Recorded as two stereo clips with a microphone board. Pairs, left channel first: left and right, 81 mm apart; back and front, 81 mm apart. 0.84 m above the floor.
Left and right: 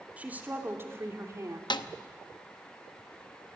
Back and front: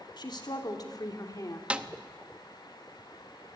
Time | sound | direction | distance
0.2 | a woman speaking | 160° right | 2.5 m
1.7 | a snare drum | 75° left | 0.8 m